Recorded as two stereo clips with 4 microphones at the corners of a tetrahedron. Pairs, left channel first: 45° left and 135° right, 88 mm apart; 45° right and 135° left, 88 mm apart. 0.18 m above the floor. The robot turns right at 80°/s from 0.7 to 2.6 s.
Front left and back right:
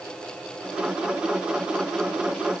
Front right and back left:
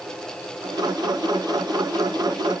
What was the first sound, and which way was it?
Only background noise.